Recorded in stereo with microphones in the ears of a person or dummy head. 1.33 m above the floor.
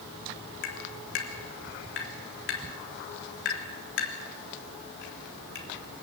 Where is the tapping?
60° left (ahead or behind), 3.5 m.